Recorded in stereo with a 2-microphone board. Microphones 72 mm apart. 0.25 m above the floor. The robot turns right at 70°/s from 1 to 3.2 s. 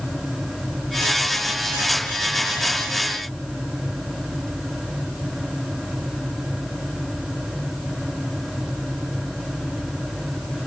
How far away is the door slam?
No door slam in this recording.